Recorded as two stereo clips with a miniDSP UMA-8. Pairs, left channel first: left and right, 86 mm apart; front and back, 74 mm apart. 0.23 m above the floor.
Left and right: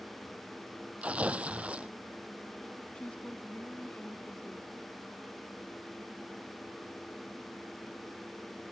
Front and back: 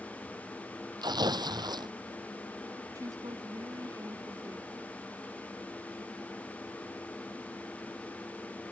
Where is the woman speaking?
165° left.